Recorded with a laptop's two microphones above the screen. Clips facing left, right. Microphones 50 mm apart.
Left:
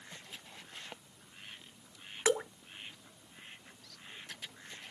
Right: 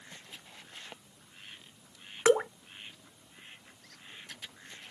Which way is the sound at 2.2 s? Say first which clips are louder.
Right 7 dB; 35° right (ahead or behind).